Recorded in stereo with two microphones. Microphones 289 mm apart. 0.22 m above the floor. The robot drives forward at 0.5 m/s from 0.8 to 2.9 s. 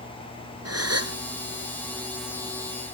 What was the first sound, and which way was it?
A gasp, 55° right (ahead or behind).